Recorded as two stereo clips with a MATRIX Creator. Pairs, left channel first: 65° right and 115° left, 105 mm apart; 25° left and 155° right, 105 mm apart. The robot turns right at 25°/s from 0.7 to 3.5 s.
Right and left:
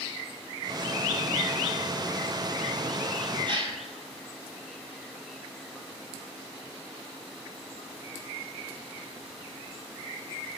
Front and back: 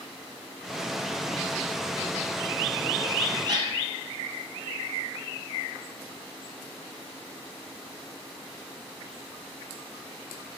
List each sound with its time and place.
3.5 s a gasp: 155° left, 0.5 m